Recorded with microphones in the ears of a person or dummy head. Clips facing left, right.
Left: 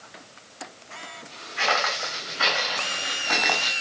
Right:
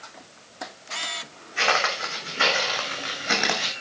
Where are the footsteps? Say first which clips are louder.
Right 1 dB; 45° right (ahead or behind), 6.5 m; by 3.7 s 20° right (ahead or behind), 4 m.